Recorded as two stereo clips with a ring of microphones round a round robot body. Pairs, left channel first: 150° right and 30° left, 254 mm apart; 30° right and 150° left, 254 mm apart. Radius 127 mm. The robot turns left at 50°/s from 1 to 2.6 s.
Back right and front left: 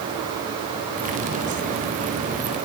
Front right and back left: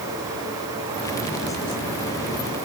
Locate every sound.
Only background noise.